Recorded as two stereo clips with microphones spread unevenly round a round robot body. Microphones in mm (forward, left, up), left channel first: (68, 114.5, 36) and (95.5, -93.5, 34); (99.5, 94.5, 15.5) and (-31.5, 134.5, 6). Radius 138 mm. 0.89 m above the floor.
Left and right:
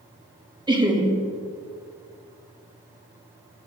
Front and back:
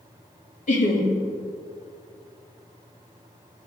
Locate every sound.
0.7 s laughter: 15° right, 1.4 m